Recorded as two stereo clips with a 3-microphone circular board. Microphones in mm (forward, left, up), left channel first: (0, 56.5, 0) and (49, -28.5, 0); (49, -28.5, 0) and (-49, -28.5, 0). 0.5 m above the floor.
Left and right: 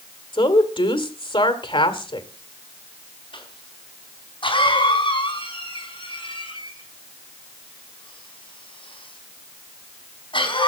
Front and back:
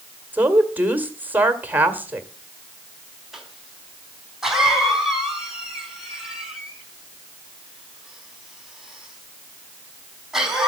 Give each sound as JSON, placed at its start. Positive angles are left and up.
{"t": 0.3, "sound": "a woman speaking", "azimuth_deg": 110, "distance_m": 1.9}
{"t": 3.3, "sound": "a cough", "azimuth_deg": 95, "distance_m": 4.5}